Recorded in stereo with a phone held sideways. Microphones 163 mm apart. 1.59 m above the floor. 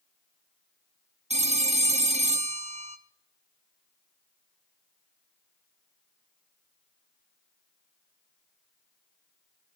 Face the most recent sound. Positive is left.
turn(degrees=-40)  # may be behind; listen again after turning